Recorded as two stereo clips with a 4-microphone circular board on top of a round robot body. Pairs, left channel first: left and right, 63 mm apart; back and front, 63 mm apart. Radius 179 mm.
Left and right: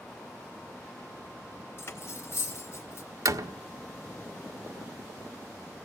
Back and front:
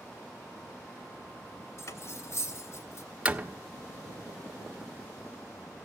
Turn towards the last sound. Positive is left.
turn(degrees=-70)